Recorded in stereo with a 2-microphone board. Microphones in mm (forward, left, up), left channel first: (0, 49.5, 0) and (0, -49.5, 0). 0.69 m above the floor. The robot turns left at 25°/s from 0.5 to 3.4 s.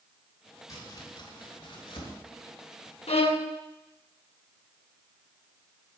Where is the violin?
80° left, 0.8 m.